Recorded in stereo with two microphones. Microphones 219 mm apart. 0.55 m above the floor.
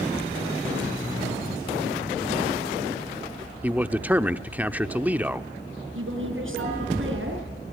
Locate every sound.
3.6 s a man speaking: 5° right (ahead or behind), 1.0 m
6.0 s a woman speaking: 65° right (ahead or behind), 6 m